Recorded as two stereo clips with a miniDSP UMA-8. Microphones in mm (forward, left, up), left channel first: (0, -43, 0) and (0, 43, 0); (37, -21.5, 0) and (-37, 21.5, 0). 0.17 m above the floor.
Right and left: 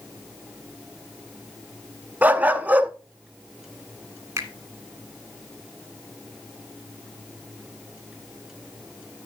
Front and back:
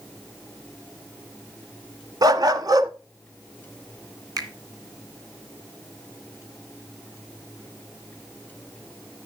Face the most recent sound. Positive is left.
turn(degrees=135)